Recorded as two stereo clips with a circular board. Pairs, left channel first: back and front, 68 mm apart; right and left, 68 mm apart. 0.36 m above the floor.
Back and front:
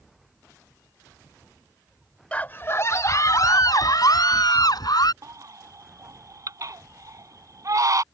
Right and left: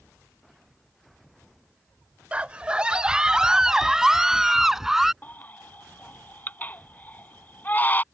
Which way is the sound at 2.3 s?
130° left.